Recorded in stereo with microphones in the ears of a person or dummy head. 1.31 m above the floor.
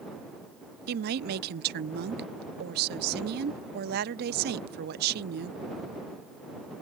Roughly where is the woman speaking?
Right.